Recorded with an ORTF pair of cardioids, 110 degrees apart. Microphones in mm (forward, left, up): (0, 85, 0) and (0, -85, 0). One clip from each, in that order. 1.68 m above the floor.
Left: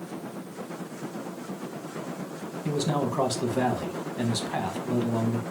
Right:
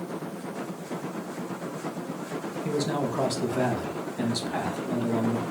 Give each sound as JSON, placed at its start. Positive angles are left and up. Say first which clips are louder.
{"t": 2.6, "sound": "a man speaking", "louder": "left 1 dB", "azimuth_deg": 10, "distance_m": 0.7}